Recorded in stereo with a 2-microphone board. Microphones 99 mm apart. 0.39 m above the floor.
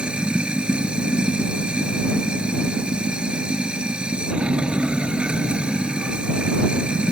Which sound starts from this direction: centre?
Running water, at 0.0 s.